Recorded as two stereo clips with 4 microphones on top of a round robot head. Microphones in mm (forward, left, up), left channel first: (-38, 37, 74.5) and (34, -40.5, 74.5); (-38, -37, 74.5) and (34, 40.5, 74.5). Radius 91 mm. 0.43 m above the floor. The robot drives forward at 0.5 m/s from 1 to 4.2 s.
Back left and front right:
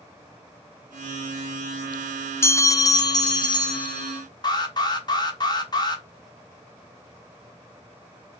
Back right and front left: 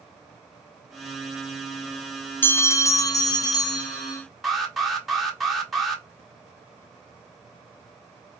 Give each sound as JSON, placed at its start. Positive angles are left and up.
{"t": 2.4, "sound": "a bell", "azimuth_deg": 175, "distance_m": 0.6}
{"t": 4.4, "sound": "an alarm", "azimuth_deg": 135, "distance_m": 1.4}